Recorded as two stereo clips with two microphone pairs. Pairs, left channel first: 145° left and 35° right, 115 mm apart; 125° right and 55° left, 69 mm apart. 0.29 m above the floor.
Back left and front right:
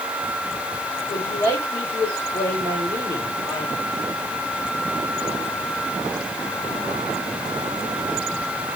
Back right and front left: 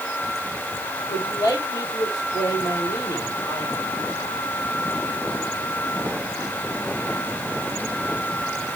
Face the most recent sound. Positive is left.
turn(degrees=-160)